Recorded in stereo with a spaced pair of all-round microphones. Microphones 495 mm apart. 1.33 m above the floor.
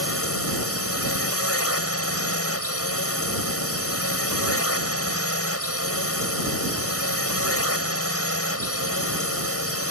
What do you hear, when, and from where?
0.0 s a drone: 30° left (ahead or behind)